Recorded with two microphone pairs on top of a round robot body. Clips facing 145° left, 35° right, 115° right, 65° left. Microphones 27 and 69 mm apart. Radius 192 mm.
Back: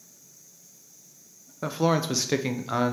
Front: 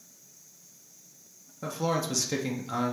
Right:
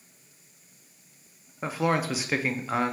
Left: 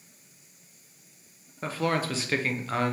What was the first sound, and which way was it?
A man speaking, 175° left.